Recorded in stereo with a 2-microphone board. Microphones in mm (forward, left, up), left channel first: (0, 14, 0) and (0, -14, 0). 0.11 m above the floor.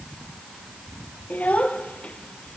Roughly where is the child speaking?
Left.